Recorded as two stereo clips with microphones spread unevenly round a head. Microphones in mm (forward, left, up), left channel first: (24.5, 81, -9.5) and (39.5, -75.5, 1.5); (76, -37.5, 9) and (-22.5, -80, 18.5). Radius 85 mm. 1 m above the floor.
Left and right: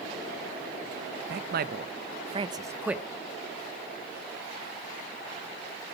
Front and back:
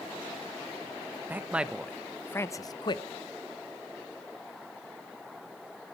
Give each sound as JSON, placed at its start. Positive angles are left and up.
{"t": 1.3, "sound": "a man speaking", "azimuth_deg": -85, "distance_m": 1.3}